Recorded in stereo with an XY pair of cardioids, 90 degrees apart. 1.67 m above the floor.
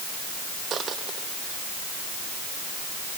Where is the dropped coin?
60° right.